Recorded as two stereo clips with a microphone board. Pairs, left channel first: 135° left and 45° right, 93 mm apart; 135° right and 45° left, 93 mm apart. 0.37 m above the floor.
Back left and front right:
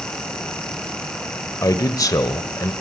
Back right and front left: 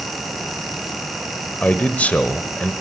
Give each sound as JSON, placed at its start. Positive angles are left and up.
{"t": 1.6, "sound": "a man speaking", "azimuth_deg": 160, "distance_m": 1.1}